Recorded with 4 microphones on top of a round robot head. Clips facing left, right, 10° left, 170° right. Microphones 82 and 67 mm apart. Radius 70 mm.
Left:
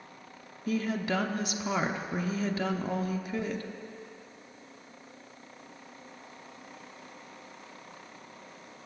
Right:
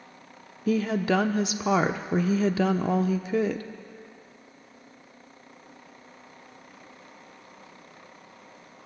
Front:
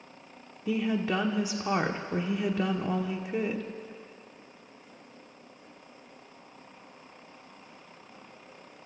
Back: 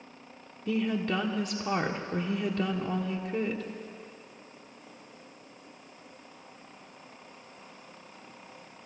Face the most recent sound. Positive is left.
turn(degrees=-75)